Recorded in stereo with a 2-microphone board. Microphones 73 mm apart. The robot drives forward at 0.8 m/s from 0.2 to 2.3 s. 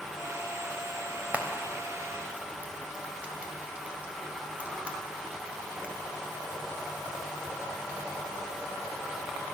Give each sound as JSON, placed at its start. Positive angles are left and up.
{"t": 1.3, "sound": "frying", "side_deg": -25, "distance_m": 1.6}